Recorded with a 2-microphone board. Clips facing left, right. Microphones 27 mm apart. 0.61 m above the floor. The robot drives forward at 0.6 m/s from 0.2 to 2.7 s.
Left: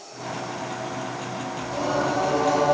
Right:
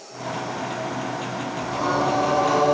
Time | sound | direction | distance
1.6 | singing | 30° right (ahead or behind) | 3.5 m